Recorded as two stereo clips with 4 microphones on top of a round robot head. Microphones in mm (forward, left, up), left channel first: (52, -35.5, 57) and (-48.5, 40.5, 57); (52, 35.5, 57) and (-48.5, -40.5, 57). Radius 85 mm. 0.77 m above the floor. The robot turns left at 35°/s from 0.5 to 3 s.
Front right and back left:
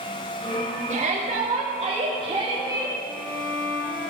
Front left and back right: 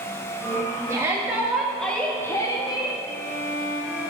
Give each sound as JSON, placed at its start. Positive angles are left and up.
{"t": 0.9, "sound": "a shout", "azimuth_deg": 150, "distance_m": 1.6}
{"t": 3.0, "sound": "a violin", "azimuth_deg": 40, "distance_m": 1.8}